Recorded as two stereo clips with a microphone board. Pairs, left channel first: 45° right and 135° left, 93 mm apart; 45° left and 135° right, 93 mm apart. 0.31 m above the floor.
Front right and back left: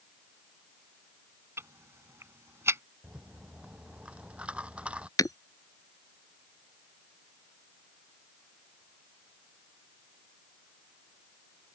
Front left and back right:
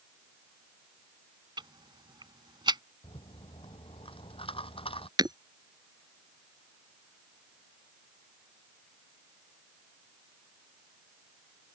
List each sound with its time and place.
1.6 s ticking: 165° right
3.0 s a rattle: 55° left
5.2 s breaking glass: 95° right